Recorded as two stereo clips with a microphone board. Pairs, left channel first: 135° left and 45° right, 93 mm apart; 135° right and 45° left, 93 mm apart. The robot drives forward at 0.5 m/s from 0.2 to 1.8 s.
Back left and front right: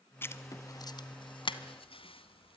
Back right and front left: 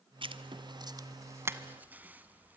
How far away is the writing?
About 0.9 m.